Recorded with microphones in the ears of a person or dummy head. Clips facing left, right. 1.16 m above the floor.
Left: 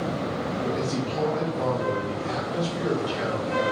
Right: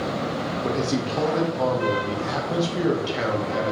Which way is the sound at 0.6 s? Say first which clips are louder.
Right 5 dB; 70° right (ahead or behind).